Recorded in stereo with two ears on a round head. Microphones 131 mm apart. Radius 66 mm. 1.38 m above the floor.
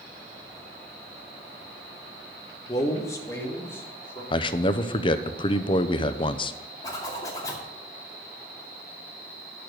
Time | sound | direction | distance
2.7 | a man speaking | 25° left (ahead or behind) | 1.4 m
4.3 | a man speaking | 35° left (ahead or behind) | 0.7 m
6.8 | a zipper | 25° left (ahead or behind) | 2.5 m